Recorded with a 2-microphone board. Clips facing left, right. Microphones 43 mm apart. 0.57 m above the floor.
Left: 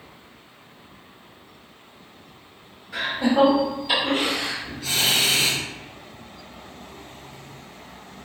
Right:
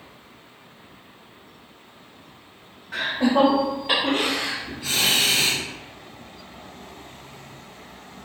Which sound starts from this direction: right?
Laughter, at 2.9 s.